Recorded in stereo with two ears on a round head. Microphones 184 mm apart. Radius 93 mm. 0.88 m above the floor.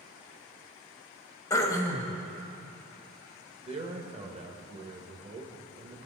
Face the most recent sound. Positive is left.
turn(degrees=-30)  # may be behind; listen again after turning